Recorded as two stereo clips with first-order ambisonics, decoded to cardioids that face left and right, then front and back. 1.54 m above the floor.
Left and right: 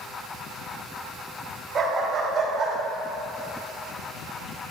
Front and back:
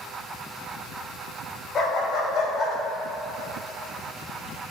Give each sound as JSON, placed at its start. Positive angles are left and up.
{"t": 1.8, "sound": "a dog barking", "azimuth_deg": -40, "distance_m": 1.3}